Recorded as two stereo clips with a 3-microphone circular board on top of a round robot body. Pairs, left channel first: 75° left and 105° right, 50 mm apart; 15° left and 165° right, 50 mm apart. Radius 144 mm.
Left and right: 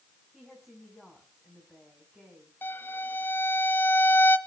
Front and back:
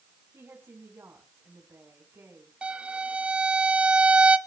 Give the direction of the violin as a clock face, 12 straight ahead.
8 o'clock.